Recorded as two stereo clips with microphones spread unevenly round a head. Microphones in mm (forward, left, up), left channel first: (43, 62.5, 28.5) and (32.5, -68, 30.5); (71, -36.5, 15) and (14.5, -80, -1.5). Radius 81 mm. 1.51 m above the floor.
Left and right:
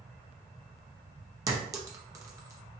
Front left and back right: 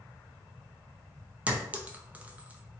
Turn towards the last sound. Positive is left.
turn(degrees=-70)